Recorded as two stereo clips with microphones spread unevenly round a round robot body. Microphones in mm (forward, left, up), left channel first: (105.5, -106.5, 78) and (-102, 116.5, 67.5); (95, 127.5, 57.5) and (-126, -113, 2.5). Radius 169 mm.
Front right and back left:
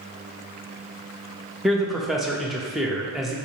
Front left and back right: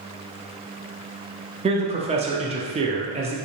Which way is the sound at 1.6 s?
140° right.